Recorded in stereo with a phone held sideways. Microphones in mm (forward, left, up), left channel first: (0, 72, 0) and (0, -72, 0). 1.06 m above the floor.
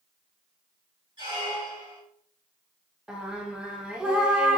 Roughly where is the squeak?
Right.